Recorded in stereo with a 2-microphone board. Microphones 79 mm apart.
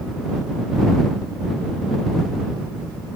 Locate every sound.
Only background noise.